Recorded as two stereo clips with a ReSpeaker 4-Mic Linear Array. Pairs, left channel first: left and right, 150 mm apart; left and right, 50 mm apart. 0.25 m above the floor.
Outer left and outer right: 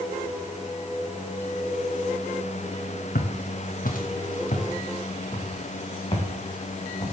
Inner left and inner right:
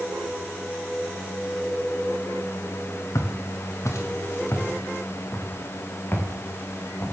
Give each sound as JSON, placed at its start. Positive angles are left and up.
{"t": 3.1, "sound": "footsteps", "side_deg": 80, "distance_m": 2.0}